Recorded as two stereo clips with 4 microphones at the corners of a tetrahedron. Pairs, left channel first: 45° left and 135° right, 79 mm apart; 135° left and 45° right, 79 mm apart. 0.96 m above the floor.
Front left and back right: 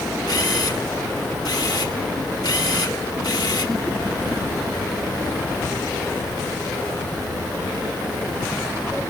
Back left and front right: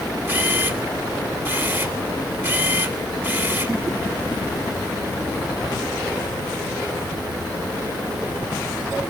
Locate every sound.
0.3 s a camera shutter: 15° left, 3.5 m